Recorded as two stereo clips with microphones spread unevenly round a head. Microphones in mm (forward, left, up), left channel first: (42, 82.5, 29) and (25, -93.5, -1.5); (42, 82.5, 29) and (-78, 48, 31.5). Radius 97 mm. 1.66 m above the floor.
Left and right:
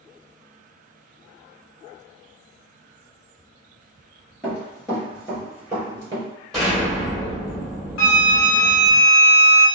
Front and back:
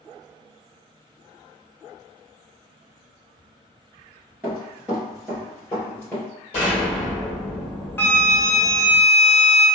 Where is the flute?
90° left, 0.8 m.